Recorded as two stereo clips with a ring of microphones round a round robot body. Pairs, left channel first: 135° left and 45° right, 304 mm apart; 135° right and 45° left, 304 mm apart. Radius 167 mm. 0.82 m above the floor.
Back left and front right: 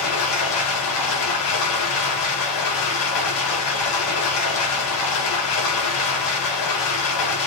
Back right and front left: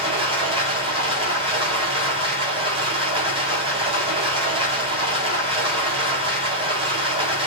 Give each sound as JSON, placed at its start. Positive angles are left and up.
{"t": 0.0, "sound": "running water", "azimuth_deg": 120, "distance_m": 4.0}